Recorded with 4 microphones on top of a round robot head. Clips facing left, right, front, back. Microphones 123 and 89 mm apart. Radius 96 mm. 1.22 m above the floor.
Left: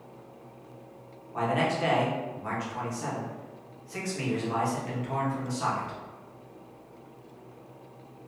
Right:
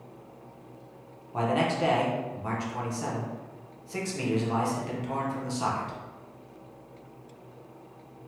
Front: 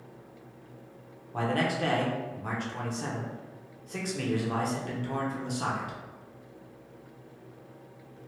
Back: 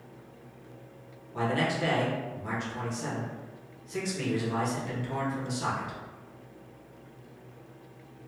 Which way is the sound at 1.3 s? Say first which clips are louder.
Right 1 dB, even; 30° right.